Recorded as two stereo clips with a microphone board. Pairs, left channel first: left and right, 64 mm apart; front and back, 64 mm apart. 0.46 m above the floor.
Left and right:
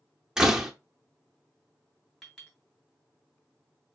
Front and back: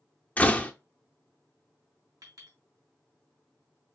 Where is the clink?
175° left, 2.5 m.